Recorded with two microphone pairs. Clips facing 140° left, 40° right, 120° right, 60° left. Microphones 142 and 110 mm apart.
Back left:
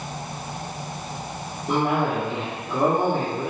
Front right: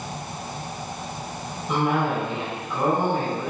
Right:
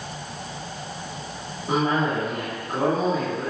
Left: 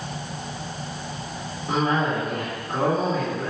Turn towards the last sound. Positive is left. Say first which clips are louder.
# back left 1 dB, even
turn(degrees=160)